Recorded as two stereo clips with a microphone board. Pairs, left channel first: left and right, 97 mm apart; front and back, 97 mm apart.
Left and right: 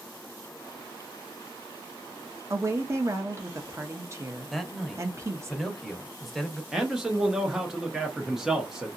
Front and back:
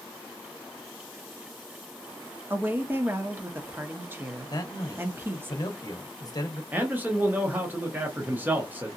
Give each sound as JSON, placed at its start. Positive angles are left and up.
{"t": 2.5, "sound": "a woman speaking", "azimuth_deg": -130, "distance_m": 0.7}
{"t": 4.5, "sound": "a man speaking", "azimuth_deg": 0, "distance_m": 0.8}
{"t": 6.7, "sound": "a man speaking", "azimuth_deg": -165, "distance_m": 0.7}